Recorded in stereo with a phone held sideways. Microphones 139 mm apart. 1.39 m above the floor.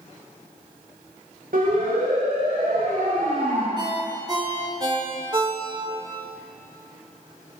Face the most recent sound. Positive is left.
turn(degrees=-30)  # may be behind; listen again after turning